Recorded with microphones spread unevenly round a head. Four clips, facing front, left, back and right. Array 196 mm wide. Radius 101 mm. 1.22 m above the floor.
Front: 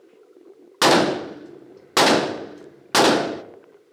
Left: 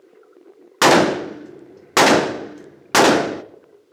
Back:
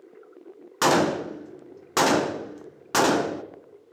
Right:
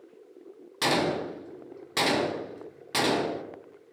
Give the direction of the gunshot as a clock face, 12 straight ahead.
10 o'clock.